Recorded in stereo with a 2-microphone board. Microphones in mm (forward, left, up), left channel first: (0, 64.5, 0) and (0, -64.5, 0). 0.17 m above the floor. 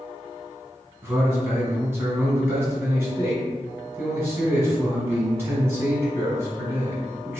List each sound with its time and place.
1.0 s a man speaking: 20° right (ahead or behind), 1.4 m